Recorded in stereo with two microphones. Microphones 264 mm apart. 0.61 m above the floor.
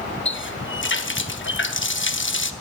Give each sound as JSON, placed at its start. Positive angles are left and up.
{"t": 0.2, "sound": "a running tap", "side_deg": 50, "distance_m": 0.8}